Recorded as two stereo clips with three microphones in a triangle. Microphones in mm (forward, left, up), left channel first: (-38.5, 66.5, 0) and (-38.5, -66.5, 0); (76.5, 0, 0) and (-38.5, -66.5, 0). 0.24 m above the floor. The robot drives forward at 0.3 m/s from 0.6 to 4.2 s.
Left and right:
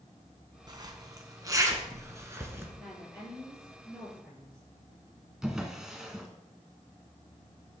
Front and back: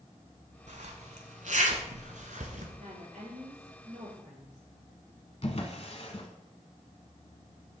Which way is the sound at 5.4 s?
5° right.